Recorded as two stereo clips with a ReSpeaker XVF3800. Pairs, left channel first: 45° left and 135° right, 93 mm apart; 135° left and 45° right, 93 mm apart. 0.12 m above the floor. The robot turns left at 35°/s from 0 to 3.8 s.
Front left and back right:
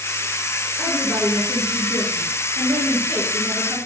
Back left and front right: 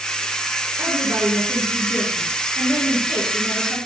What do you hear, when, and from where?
0.8 s a woman speaking: 30° right, 1.7 m; by 3.8 s 135° right, 1.7 m